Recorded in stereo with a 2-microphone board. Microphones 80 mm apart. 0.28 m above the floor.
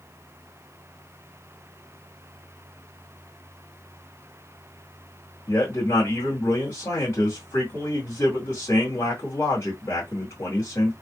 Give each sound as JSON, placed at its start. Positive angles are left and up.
{"t": 5.5, "sound": "a man speaking", "side_deg": 35, "distance_m": 1.9}